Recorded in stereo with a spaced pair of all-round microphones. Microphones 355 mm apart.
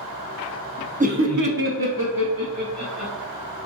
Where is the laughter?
20° right (ahead or behind), 0.7 m; by 3.1 s 50° right (ahead or behind), 1.9 m.